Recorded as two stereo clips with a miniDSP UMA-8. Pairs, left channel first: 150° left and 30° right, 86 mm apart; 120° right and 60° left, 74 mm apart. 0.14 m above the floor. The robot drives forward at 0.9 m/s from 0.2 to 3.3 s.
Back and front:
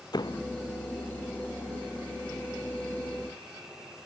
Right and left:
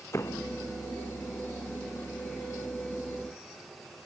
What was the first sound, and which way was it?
A door slam, 175° right.